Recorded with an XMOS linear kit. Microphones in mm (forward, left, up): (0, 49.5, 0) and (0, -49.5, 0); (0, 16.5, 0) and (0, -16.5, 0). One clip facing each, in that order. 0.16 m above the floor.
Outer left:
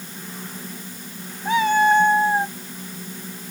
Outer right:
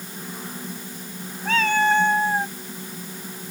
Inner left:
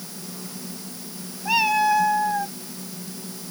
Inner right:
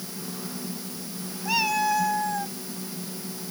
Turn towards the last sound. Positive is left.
turn(degrees=15)  # may be behind; listen again after turning